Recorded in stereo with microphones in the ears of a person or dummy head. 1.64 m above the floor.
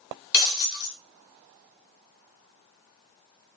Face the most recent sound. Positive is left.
turn(degrees=55)  # may be behind; listen again after turning